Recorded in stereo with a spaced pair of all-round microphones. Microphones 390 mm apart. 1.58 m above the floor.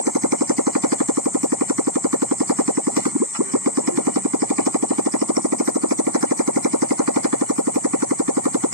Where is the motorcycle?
55° right (ahead or behind).